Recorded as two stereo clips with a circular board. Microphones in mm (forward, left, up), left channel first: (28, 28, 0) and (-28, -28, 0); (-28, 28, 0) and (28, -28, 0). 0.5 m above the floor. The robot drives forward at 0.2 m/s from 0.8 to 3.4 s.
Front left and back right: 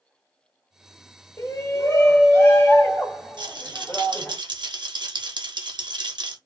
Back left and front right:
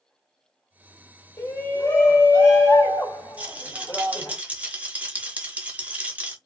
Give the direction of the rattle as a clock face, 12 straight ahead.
4 o'clock.